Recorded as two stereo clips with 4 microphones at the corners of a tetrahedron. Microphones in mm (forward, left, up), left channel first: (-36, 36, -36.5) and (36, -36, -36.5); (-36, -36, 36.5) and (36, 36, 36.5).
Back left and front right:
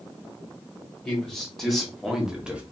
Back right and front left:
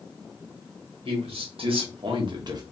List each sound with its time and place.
1.1 s a man speaking: 55° left, 1.8 m; by 2.6 s 25° left, 0.9 m